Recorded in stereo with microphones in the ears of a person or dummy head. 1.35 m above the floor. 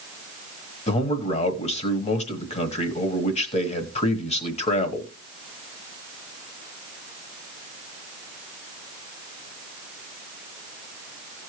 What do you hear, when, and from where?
0.9 s a man speaking: 35° left (ahead or behind), 1.1 m